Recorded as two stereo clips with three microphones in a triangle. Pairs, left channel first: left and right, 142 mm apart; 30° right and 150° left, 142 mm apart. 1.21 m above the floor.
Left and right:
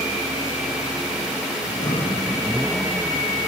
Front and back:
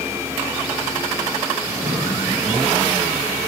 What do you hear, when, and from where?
1.6 s breathing: 110° left, 8.5 m